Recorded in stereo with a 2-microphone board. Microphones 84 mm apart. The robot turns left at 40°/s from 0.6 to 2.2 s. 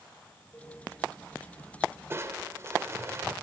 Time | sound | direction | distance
0.5 | a cowbell | 25° left (ahead or behind) | 8.5 m
2.1 | crushing | 30° right (ahead or behind) | 1.9 m